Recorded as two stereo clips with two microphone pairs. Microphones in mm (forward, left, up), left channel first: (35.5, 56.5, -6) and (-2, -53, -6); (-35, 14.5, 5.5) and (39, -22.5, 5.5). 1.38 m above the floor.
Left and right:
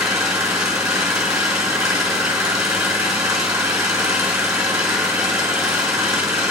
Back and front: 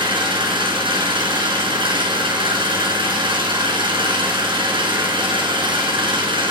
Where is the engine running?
25° right, 5 m.